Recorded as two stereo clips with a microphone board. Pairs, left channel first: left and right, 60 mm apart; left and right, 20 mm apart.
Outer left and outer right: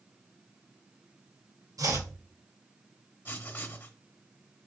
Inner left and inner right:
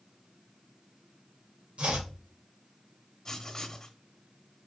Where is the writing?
35° left (ahead or behind), 0.9 m.